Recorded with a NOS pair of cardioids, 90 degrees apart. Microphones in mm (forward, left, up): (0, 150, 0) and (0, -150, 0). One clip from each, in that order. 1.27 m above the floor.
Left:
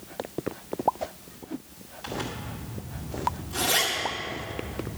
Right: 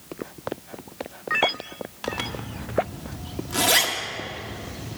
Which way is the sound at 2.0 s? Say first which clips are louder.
Right 4 dB; 60° right.